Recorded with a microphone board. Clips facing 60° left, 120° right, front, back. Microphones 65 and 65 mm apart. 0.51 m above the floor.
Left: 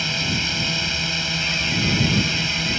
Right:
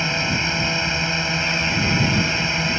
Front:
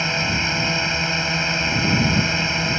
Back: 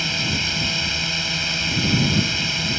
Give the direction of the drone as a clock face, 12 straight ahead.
2 o'clock.